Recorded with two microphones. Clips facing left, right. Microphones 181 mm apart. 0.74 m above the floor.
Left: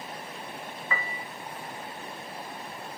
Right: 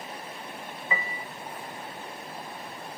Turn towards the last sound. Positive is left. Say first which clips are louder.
# right 2 dB
turn(degrees=-20)  # may be behind; listen again after turning